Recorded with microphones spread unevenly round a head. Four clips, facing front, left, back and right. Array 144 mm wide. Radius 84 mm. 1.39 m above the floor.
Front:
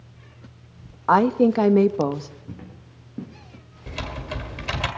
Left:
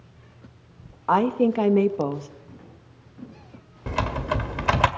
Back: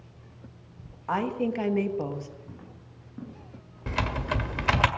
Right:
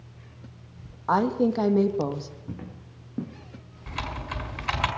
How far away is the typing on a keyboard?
About 1.7 m.